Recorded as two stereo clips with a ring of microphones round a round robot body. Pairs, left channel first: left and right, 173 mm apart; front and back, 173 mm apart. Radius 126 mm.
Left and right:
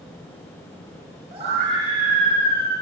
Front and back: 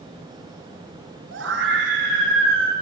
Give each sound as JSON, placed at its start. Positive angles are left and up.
{"t": 1.3, "sound": "a scream", "azimuth_deg": -160, "distance_m": 4.5}